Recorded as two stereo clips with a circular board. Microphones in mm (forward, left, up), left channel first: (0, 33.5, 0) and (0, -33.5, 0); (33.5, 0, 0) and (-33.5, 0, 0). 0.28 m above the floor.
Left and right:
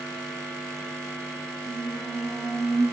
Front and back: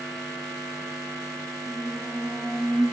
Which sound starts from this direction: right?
A squeak, at 1.7 s.